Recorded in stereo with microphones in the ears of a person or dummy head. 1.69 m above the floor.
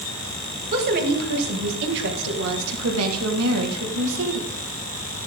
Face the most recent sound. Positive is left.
turn(degrees=-70)  # may be behind; listen again after turning